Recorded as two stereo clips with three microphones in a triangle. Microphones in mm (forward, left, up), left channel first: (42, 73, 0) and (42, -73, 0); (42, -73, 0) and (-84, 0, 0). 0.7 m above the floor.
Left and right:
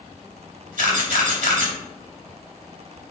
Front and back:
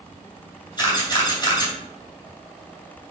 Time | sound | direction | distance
0.8 | a camera shutter | 85° right | 3 m